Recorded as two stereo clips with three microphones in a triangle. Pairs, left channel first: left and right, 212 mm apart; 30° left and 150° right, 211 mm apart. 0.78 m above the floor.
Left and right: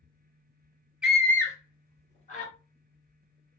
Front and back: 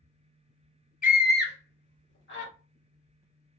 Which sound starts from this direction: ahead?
A scream, at 1.0 s.